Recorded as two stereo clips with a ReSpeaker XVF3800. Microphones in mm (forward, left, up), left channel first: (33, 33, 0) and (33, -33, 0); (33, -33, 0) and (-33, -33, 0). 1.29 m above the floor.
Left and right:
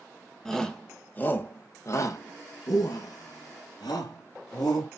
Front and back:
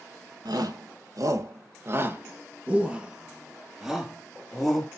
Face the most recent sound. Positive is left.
turn(degrees=85)